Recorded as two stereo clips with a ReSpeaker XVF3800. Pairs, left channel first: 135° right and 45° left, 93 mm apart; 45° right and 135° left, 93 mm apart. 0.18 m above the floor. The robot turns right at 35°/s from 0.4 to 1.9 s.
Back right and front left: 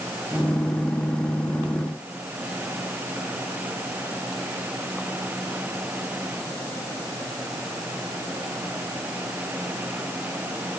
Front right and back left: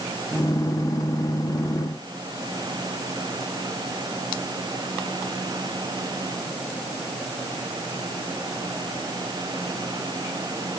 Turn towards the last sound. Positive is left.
No sound to turn to.